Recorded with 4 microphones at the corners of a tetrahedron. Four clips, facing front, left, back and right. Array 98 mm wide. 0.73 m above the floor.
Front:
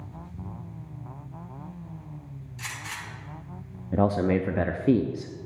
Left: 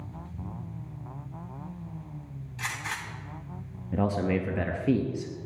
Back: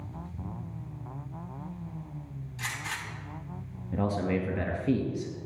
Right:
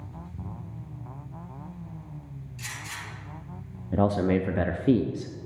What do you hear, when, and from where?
2.6 s a gunshot: 100° left, 5 m
3.9 s a man speaking: 30° right, 0.6 m